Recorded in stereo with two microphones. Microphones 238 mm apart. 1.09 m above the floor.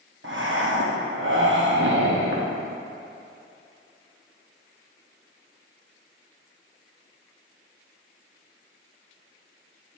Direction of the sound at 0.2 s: 55° right (ahead or behind).